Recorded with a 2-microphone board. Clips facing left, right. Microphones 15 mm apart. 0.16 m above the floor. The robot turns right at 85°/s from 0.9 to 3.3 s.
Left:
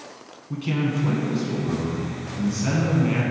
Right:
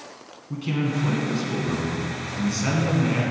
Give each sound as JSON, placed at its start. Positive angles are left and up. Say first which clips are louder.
{"t": 0.5, "sound": "a man speaking", "louder": "left 1 dB", "azimuth_deg": 170, "distance_m": 1.6}